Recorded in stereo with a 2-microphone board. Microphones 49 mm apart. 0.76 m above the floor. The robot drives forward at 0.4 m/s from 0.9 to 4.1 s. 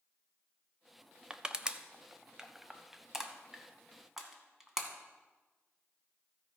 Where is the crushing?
20° right (ahead or behind), 0.5 m; by 4.9 s 10° right (ahead or behind), 1.4 m.